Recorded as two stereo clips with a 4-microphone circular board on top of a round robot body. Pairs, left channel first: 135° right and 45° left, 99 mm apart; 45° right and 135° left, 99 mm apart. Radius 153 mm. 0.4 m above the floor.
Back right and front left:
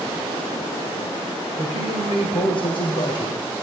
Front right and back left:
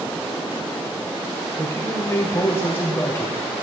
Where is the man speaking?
110° right, 2.5 m.